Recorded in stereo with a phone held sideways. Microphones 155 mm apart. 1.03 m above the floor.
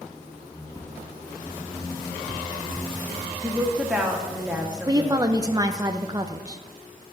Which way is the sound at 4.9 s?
25° right (ahead or behind).